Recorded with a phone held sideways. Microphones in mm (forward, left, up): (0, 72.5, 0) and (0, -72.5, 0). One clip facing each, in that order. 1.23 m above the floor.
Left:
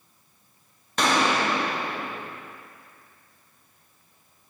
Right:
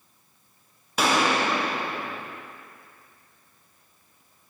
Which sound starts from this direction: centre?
A gunshot, at 1.0 s.